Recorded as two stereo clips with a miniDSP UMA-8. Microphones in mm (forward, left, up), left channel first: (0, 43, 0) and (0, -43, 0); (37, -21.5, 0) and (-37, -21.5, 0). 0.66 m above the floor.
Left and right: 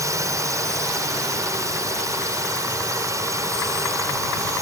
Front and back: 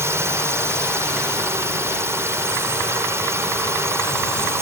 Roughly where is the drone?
Behind right.